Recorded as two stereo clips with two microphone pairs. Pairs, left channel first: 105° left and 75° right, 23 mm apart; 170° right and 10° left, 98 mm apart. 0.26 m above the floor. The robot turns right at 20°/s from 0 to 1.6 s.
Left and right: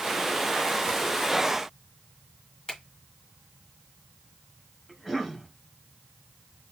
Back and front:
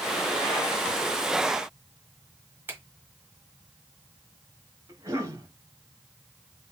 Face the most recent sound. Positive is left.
turn(degrees=40)